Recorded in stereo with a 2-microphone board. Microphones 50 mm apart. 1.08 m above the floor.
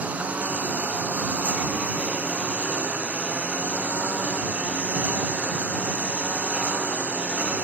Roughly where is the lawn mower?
Right.